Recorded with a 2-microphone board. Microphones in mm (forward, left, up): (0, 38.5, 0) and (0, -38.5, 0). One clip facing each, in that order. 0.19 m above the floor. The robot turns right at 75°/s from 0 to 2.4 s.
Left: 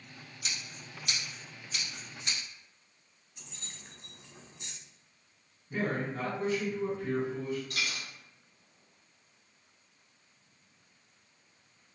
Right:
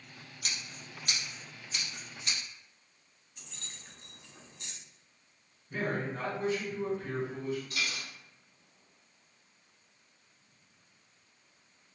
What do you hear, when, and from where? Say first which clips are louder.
0.4 s scissors: even; 65° right (ahead or behind), 1.4 m; by 2.4 s 40° left (ahead or behind), 1.4 m
3.4 s keys jangling: left 1 dB; 20° left (ahead or behind), 0.7 m
5.7 s a man speaking: left 1 dB; 10° left (ahead or behind), 1.6 m
7.7 s a dropped coin: even; 60° left (ahead or behind), 1.3 m